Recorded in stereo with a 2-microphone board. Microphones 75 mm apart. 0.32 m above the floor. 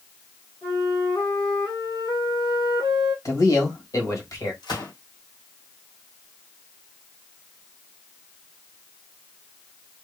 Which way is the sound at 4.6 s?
85° left.